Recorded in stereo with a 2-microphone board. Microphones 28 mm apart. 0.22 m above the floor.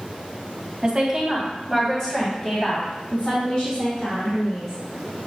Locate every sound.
0.8 s a woman speaking: 25° right (ahead or behind), 1.4 m; by 4.7 s 60° left (ahead or behind), 3 m